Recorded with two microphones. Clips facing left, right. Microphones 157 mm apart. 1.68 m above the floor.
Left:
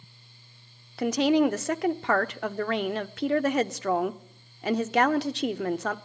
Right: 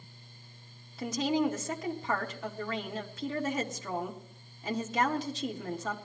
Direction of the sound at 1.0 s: 75° left (ahead or behind).